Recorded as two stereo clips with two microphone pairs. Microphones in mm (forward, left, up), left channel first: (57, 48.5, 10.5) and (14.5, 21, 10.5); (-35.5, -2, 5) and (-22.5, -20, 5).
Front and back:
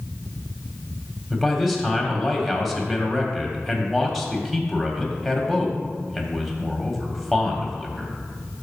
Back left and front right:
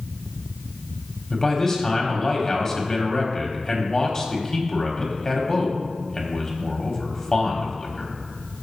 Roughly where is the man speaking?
Behind left.